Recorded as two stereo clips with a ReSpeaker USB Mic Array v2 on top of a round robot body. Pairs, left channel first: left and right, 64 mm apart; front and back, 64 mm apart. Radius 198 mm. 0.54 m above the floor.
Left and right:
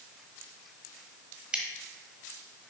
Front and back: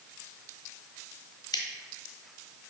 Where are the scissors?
15° right, 0.5 m.